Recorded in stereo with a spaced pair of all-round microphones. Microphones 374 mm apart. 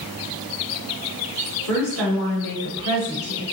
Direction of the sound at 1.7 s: 65° left (ahead or behind).